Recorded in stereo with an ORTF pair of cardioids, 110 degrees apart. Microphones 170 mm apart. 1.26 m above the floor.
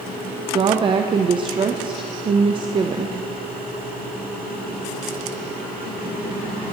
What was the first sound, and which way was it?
A woman speaking, 30° right.